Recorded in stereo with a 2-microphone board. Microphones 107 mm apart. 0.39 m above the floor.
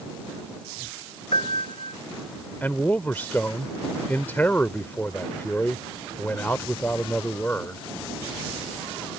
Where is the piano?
70° left (ahead or behind).